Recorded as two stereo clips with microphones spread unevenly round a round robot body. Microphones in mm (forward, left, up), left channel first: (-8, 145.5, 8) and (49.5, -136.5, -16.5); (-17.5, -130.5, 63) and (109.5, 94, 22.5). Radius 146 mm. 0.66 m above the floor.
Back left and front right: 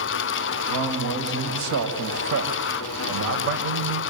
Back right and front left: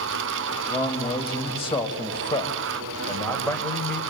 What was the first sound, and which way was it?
A man speaking, 55° right.